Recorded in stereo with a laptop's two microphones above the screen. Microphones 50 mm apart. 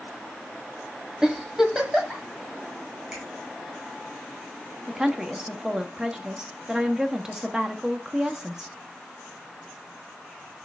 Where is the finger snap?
15° right (ahead or behind), 5.5 m.